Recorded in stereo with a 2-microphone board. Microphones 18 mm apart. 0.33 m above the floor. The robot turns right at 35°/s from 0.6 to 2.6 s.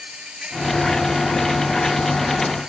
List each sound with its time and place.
0.0 s an insect: 120° right; by 2.7 s 50° right